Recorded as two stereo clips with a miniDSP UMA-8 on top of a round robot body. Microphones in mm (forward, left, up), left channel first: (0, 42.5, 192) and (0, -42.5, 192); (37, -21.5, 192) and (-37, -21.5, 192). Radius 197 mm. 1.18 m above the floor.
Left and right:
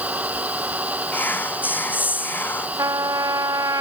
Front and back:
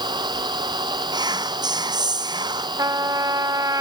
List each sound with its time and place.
0.0 s an engine running: 165° right
1.1 s whispering: 160° left
2.8 s a trumpet: 140° right